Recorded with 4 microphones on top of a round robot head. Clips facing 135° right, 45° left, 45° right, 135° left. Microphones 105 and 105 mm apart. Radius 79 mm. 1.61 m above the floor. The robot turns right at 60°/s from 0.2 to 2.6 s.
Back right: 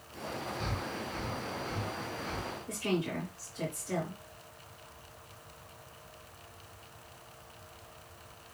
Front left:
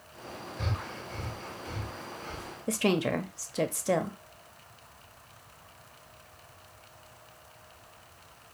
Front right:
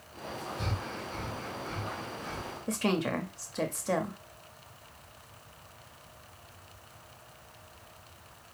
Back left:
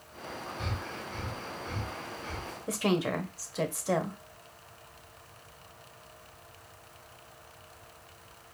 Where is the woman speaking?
50° left, 0.7 m.